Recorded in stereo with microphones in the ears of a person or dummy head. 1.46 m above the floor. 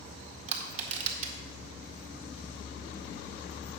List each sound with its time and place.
0.5 s crushing: 35° right (ahead or behind), 1.9 m